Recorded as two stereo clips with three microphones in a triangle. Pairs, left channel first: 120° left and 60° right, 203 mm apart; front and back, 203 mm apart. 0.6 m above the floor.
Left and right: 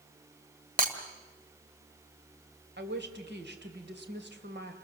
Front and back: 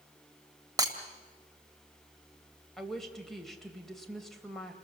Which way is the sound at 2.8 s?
90° right.